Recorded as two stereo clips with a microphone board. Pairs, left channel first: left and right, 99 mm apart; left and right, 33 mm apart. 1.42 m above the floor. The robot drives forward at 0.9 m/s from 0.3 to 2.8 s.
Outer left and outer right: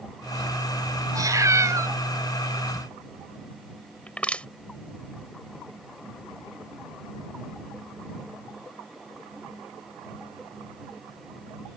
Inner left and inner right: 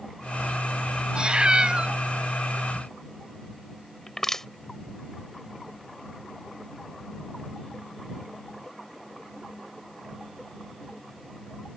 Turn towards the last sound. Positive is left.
turn(degrees=10)  # may be behind; listen again after turning